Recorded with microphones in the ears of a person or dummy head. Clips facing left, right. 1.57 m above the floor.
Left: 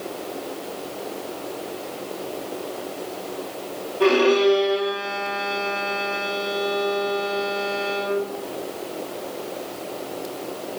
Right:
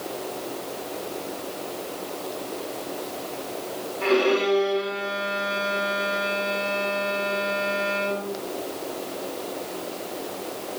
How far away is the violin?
About 9 m.